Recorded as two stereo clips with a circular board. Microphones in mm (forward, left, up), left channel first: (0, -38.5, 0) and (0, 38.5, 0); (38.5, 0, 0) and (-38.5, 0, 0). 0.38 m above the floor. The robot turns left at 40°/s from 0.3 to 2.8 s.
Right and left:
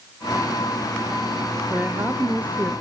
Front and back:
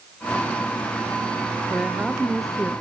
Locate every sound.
1.7 s a woman speaking: 125° left, 1.0 m; by 2.7 s 85° left, 1.0 m